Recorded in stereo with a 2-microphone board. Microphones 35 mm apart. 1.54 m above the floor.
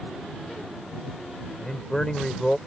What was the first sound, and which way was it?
A man speaking, 15° left (ahead or behind).